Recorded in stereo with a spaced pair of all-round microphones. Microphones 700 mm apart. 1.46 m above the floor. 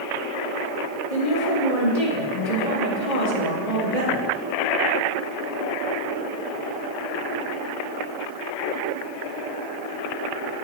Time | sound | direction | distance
1.1 | a woman speaking | 65° left (ahead or behind) | 3 m